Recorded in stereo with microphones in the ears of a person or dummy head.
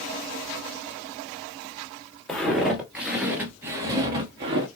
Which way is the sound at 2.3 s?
Centre (ahead or behind).